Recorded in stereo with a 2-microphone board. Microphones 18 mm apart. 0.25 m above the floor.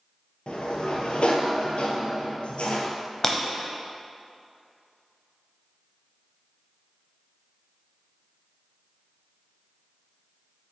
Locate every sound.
0.5 s a sliding door: 80° left, 0.9 m
3.2 s breaking glass: 20° left (ahead or behind), 0.7 m